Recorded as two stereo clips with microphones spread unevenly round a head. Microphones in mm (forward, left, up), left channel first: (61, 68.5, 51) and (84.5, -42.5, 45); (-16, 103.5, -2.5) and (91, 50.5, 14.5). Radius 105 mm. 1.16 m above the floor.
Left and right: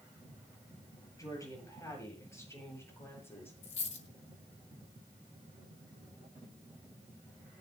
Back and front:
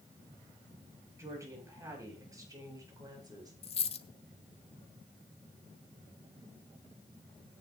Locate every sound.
1.2 s a woman speaking: 40° left, 9 m; by 3.5 s 30° left, 9.5 m
3.6 s a dropped coin: 125° left, 1.1 m